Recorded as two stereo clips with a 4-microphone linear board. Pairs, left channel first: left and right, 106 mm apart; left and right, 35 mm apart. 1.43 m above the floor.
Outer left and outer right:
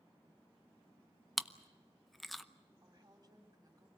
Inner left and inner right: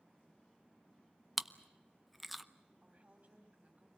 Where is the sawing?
No sawing in this recording.